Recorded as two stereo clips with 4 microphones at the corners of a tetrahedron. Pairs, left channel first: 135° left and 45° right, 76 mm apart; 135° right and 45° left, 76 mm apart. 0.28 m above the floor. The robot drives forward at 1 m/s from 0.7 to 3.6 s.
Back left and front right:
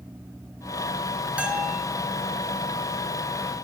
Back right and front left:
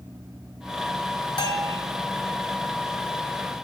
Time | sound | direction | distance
1.4 | a bell | 120° right | 0.8 m